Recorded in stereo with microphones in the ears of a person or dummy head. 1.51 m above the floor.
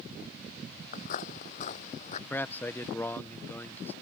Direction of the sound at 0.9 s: 50° left (ahead or behind).